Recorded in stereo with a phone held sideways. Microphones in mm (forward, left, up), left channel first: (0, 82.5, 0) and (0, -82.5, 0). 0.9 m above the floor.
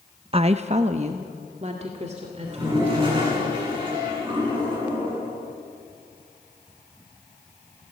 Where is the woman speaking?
35° right (ahead or behind), 0.5 m; by 3.3 s 40° right (ahead or behind), 4 m.